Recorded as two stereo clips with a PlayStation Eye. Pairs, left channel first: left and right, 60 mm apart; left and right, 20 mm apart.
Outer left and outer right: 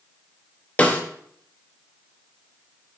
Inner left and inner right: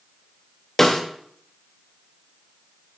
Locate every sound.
0.8 s a snare drum: 25° left (ahead or behind), 1.1 m